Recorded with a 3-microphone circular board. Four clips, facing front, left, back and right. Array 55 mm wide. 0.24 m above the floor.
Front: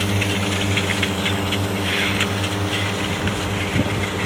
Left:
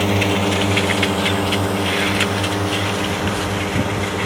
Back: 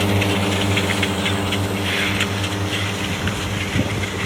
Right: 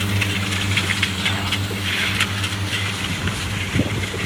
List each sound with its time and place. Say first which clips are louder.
0.0 s a drone: left 6 dB, back 3 dB; 115° left; by 4.3 s 75° left